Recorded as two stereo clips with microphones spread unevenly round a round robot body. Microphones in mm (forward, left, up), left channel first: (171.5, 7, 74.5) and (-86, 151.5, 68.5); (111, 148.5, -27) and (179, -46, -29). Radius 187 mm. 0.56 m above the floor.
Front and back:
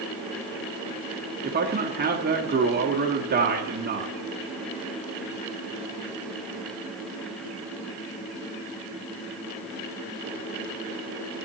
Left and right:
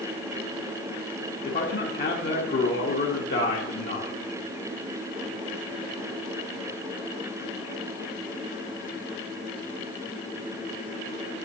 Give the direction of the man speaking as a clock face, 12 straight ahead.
8 o'clock.